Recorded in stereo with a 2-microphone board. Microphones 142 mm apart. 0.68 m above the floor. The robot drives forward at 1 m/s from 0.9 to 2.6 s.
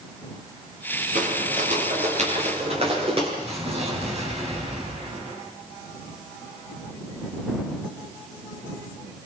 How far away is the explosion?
About 5 m.